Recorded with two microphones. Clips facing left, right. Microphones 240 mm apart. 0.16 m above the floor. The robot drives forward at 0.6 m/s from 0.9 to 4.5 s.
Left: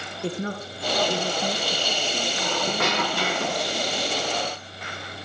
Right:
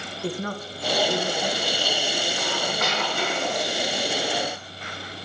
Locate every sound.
0.2 s a woman speaking: 25° left (ahead or behind), 1.5 m; by 3.4 s 35° left (ahead or behind), 1.3 m
2.4 s a squeak: 60° left (ahead or behind), 2.5 m; by 3.9 s 80° left, 2 m